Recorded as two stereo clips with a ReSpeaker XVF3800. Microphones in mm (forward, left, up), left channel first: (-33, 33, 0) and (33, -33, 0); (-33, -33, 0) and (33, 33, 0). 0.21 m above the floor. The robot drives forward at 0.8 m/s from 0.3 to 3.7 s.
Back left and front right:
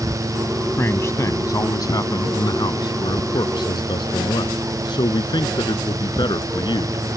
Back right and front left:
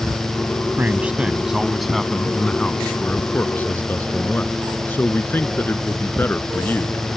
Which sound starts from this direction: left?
A man speaking, at 0.8 s.